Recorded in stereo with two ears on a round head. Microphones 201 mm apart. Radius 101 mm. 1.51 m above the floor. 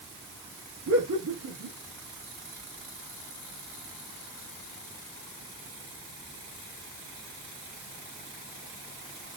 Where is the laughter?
80° right, 1.9 m.